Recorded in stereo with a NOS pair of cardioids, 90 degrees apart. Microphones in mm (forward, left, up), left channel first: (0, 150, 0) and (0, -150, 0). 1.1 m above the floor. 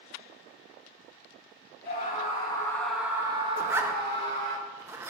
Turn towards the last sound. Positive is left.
turn(degrees=-10)